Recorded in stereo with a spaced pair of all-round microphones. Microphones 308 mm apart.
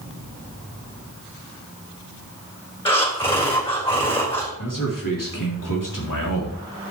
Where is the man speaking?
85° left, 3.5 m.